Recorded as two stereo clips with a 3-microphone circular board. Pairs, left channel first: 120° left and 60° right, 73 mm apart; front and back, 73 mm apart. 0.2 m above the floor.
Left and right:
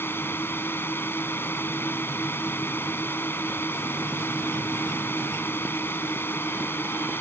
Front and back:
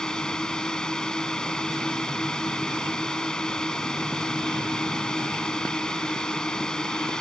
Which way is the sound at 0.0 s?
75° left.